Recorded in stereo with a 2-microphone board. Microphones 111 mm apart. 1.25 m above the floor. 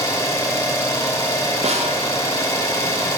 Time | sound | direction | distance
0.0 | an engine running | 25° left (ahead or behind) | 1.0 m
1.6 | a snare drum | 70° right (ahead or behind) | 0.7 m